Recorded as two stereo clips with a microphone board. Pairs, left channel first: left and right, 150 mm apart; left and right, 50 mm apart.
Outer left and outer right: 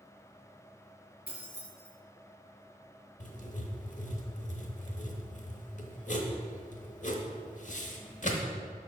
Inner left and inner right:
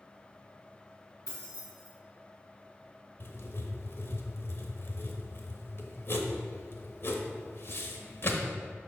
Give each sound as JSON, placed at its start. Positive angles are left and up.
{"t": 1.3, "sound": "keys jangling", "side_deg": 80, "distance_m": 2.5}
{"t": 3.2, "sound": "writing", "side_deg": 55, "distance_m": 0.9}